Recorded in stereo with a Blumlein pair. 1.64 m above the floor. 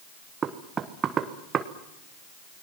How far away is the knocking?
About 1.4 m.